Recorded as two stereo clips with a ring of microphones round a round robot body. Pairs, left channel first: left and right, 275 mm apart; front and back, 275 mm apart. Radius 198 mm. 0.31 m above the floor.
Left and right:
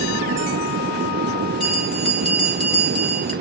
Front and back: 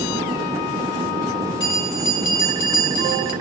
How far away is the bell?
About 2.5 m.